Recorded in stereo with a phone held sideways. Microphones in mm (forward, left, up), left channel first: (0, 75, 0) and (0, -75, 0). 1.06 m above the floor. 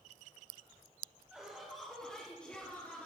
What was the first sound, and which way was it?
Laughter, 5° right (ahead or behind).